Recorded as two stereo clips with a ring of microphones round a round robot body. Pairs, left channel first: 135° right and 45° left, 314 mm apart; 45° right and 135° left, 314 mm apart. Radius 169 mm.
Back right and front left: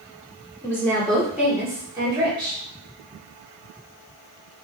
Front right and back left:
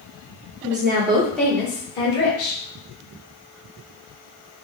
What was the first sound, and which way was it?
A woman speaking, 150° left.